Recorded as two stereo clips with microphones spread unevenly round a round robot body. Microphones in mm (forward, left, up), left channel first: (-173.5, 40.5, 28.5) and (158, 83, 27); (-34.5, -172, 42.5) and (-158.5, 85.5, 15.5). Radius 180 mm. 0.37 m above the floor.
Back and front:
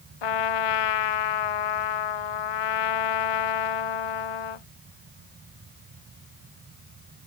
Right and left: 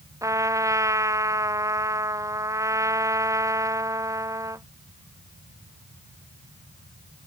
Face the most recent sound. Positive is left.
turn(degrees=-165)